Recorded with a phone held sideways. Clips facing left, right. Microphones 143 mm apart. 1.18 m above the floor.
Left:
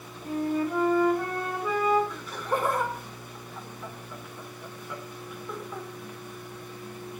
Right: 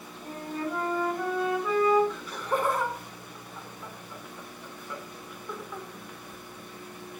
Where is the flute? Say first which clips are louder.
Left 6 dB; 5° left (ahead or behind), 3.5 m.